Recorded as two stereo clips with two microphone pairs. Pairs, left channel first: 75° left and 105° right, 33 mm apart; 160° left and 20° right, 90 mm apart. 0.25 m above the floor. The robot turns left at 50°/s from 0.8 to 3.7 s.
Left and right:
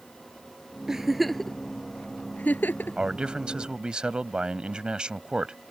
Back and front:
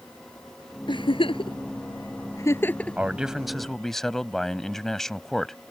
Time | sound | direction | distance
0.9 | a giggle | straight behind | ?
3.0 | a man speaking | 85° right | ?